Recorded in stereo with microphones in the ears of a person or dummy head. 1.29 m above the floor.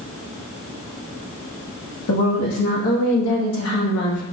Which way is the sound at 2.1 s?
85° left.